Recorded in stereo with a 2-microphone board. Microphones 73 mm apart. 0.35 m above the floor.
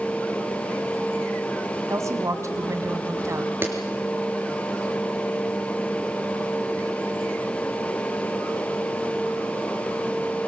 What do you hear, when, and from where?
1.9 s a woman speaking: 45° right (ahead or behind), 3 m
3.6 s a clap: 30° right (ahead or behind), 5 m